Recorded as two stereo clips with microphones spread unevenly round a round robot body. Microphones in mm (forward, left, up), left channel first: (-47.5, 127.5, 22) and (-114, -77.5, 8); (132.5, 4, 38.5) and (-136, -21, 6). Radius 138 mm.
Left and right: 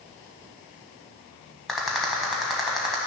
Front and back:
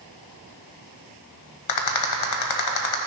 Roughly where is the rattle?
Ahead.